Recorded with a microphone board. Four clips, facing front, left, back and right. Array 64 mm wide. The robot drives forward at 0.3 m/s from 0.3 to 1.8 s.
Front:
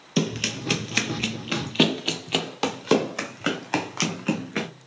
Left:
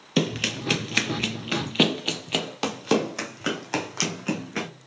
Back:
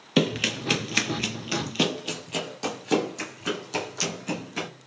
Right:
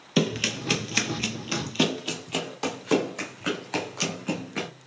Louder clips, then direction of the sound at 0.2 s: Even, back 2 dB; 175° left.